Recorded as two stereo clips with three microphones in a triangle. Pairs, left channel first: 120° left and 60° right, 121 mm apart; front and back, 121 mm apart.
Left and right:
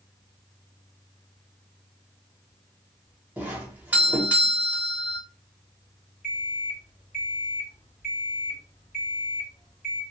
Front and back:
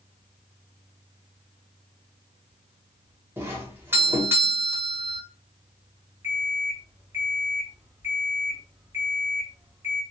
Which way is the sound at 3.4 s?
125° right.